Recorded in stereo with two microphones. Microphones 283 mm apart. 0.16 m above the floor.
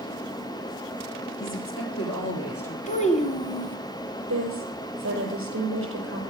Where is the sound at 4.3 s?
50° right (ahead or behind), 4.5 m.